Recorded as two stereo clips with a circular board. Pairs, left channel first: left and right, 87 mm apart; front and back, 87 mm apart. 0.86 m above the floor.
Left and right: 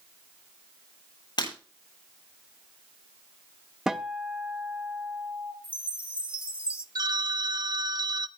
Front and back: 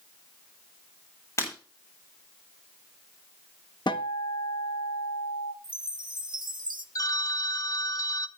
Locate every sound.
1.4 s breaking glass: 55° left, 9.5 m
3.9 s a guitar: 10° right, 1.0 m
5.6 s a chime: 165° right, 1.0 m
7.0 s a phone ringing: 50° right, 0.7 m